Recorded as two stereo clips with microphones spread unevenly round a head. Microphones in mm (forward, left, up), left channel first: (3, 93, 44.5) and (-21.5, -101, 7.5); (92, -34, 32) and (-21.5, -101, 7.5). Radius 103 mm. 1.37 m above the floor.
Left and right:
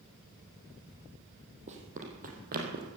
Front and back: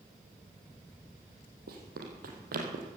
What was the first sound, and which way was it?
Running footsteps, 155° right.